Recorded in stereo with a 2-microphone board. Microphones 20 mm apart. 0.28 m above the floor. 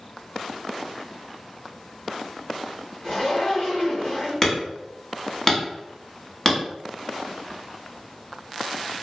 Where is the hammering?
30° left (ahead or behind), 1.1 m.